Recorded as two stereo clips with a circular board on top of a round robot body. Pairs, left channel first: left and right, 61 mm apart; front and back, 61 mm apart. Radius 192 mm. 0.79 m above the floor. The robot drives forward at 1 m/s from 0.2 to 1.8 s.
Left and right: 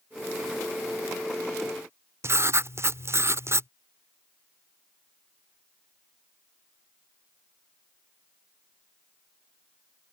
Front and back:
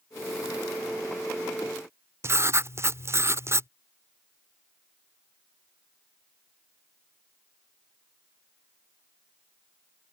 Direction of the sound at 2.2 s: 135° right.